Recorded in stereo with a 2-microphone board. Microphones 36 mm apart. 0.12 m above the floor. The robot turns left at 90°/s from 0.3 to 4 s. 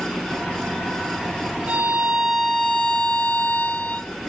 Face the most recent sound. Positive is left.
turn(degrees=20)